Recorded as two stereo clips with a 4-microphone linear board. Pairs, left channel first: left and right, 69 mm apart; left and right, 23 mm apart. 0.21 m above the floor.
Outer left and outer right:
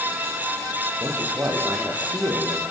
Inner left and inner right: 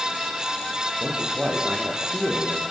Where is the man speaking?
35° right (ahead or behind), 8 m.